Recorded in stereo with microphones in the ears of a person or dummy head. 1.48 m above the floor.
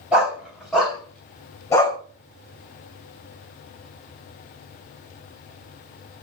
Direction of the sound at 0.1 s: 5° right (ahead or behind).